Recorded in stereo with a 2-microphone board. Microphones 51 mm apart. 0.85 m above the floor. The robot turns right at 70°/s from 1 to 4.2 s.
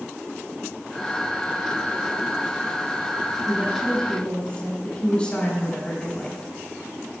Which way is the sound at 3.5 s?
30° right.